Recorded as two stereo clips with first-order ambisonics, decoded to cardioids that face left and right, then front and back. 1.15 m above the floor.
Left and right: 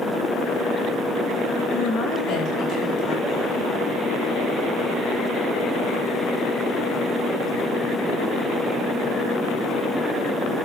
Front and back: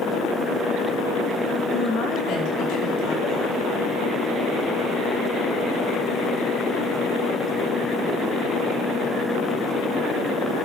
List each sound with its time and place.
1.7 s a woman speaking: 55° left, 5.5 m; by 3.6 s 40° left, 7.5 m